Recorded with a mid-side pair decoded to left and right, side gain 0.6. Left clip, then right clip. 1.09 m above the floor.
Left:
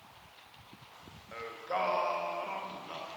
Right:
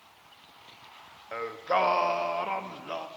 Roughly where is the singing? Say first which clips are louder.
Right 8 dB; ahead right.